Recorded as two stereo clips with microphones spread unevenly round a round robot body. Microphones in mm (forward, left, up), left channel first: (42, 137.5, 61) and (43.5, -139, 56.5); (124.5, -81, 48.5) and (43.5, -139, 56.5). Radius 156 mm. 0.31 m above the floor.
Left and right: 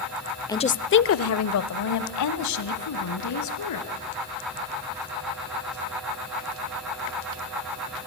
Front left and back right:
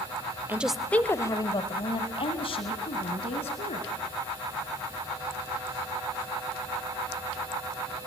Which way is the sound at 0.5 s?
160° left.